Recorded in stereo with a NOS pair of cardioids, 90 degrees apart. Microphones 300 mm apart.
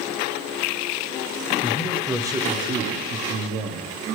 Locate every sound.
1.6 s a man speaking: 15° left, 1.0 m; by 3.9 s 70° right, 1.4 m